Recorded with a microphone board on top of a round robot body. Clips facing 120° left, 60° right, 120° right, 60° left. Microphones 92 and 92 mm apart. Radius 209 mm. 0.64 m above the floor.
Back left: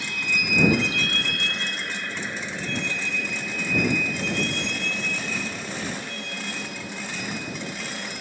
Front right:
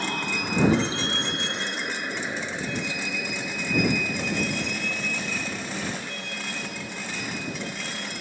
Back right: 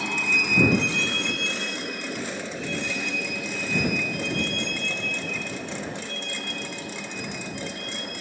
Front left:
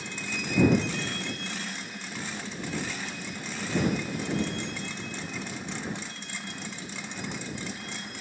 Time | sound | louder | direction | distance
0.0 | a vehicle | front right 2 dB, back right 8 dB | 110° right | ?